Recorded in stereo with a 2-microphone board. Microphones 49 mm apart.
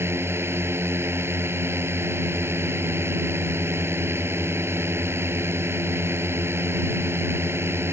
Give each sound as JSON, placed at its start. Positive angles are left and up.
{"t": 0.0, "sound": "a drone", "side_deg": -55}